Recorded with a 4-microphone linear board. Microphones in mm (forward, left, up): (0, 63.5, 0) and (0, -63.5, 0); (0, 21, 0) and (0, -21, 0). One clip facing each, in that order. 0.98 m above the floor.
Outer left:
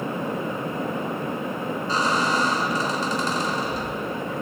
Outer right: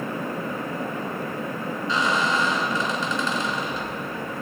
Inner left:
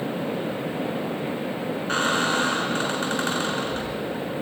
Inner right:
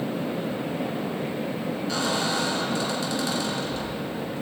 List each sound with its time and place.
1.9 s a squeak: 40° left (ahead or behind), 1.9 m